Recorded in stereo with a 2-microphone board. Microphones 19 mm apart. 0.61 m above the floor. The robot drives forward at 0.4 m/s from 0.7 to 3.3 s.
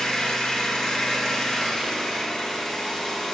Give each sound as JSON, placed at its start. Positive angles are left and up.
{"t": 0.0, "sound": "an engine running", "side_deg": 35, "distance_m": 1.1}